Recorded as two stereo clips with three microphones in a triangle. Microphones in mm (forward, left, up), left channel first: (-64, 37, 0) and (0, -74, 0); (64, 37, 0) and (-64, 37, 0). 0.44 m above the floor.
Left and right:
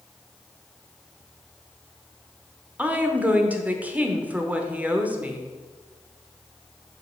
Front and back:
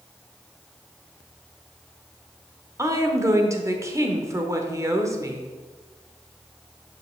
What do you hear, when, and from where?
2.8 s a woman speaking: 130° right, 0.9 m